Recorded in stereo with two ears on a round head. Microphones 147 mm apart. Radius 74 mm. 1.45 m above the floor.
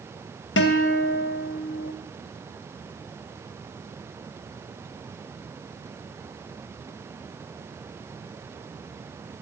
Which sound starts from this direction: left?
A guitar, at 0.6 s.